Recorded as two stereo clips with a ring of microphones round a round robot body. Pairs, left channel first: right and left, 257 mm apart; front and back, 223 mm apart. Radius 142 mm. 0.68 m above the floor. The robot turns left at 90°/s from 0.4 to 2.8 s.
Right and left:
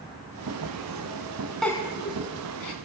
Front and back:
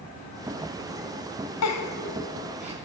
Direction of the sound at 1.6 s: Straight ahead.